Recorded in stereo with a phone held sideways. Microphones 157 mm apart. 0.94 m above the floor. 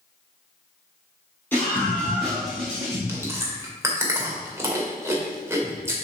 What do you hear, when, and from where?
1.5 s a scream: 15° left (ahead or behind), 3.5 m; by 3.0 s 15° right (ahead or behind), 3.5 m
3.1 s chewing: 15° right (ahead or behind), 1.9 m